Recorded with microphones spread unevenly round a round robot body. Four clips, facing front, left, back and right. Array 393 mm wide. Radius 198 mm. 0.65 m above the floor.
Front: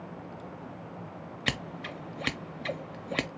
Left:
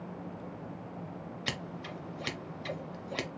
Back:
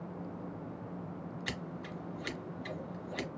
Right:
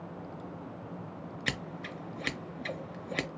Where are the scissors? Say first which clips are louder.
Right 2 dB, front 5 dB; 15° right, 0.7 m.